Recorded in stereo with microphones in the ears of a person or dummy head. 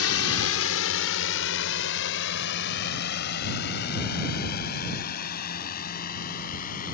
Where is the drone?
70° left (ahead or behind); by 6.9 s 40° left (ahead or behind).